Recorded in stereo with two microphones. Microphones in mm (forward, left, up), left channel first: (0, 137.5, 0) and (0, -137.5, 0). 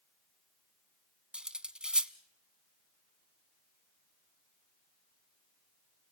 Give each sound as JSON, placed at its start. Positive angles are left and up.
{"t": 1.3, "sound": "cutlery clinking", "side_deg": -5, "distance_m": 0.6}